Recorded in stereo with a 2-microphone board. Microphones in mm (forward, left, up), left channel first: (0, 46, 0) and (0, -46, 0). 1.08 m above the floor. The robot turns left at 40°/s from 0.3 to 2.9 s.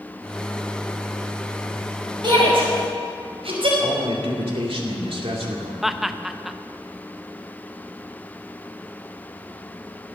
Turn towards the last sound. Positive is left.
turn(degrees=0)  # may be behind; listen again after turning